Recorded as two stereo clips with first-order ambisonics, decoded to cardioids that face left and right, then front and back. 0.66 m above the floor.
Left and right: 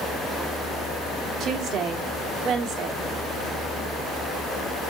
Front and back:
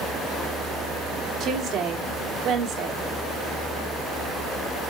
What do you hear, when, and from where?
1.4 s a woman speaking: 130° right, 1.2 m